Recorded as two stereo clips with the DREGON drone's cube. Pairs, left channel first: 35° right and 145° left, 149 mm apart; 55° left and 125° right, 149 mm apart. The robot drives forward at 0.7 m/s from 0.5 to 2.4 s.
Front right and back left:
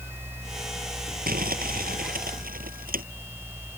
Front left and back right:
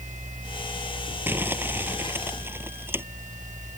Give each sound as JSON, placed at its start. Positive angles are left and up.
{"t": 1.3, "sound": "crumpling", "azimuth_deg": 160}